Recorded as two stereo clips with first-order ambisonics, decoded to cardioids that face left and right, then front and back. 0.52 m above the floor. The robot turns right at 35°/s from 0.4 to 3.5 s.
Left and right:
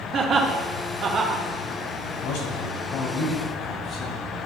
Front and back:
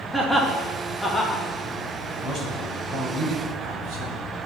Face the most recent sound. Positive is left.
turn(degrees=160)